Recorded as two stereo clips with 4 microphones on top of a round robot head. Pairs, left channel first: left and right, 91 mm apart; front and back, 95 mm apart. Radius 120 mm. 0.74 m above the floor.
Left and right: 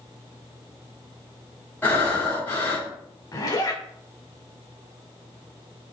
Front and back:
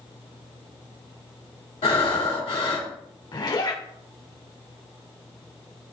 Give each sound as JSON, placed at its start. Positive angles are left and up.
{"t": 1.8, "sound": "breathing", "azimuth_deg": 20, "distance_m": 3.0}
{"t": 3.3, "sound": "a zipper", "azimuth_deg": 40, "distance_m": 2.5}